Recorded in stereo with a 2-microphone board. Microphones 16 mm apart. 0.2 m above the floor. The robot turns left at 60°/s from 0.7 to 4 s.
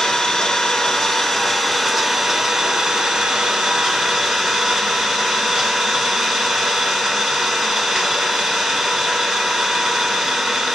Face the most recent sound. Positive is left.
turn(degrees=-130)